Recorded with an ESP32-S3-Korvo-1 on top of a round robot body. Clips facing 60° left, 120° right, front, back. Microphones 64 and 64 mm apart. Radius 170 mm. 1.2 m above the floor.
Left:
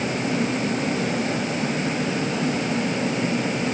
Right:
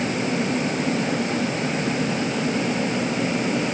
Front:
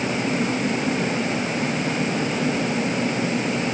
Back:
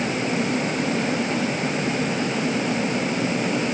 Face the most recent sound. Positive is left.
No sound to turn to.